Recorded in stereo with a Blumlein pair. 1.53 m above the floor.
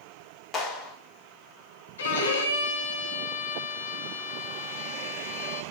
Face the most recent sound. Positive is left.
turn(degrees=65)